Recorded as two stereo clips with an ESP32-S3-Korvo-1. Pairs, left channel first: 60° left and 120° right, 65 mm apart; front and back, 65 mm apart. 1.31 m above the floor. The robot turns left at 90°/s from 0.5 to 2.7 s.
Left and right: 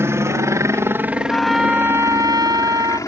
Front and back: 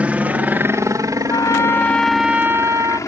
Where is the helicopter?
120° right; by 3.1 s 35° left.